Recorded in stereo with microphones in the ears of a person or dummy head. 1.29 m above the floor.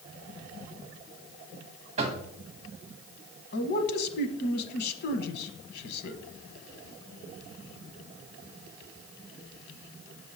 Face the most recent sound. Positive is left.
turn(degrees=60)  # may be behind; listen again after turning